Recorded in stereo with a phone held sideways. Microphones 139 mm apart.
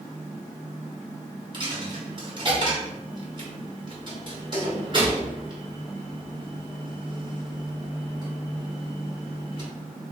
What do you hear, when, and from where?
1.5 s a dropped coin: 35° right (ahead or behind), 1.2 m